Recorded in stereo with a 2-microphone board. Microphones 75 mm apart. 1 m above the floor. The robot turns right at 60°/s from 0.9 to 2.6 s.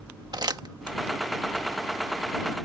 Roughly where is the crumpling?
Right.